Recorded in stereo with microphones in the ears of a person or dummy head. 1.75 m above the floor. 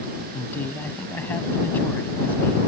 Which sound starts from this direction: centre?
A man speaking, at 0.3 s.